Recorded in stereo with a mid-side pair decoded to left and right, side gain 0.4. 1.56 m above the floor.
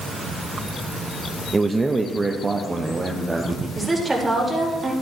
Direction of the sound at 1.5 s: 25° right.